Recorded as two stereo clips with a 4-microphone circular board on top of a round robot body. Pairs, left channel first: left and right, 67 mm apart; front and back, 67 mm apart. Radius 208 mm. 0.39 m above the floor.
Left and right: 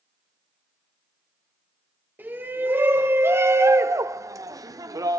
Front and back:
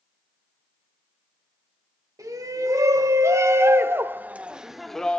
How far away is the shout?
About 3.5 m.